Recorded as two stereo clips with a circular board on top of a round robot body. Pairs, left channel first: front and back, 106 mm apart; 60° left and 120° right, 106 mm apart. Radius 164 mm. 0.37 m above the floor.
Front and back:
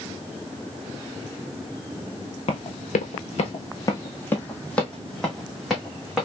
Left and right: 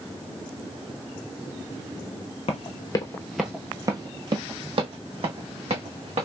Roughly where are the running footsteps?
Ahead left.